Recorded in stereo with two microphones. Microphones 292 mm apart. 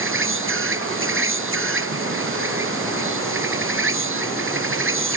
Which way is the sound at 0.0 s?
45° right (ahead or behind).